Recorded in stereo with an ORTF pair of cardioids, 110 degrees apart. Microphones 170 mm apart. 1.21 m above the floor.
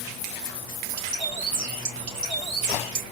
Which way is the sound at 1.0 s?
60° right.